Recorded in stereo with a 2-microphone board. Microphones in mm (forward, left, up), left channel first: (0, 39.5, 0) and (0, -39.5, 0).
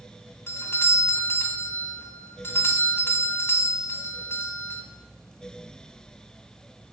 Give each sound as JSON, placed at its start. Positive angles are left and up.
{"t": 0.5, "sound": "a doorbell", "side_deg": 30, "distance_m": 1.8}